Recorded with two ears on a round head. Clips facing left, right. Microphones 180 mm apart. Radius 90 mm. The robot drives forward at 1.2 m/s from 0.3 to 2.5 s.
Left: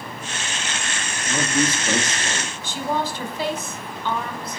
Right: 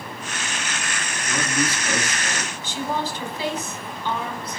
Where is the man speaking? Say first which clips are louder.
Left 3 dB; 15° left (ahead or behind), 1.3 m.